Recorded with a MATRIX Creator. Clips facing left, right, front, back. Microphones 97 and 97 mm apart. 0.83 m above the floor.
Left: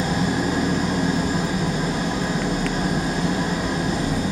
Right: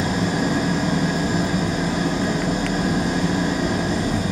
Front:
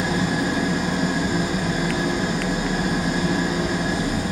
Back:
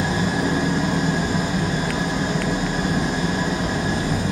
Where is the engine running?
80° right, 2.0 m.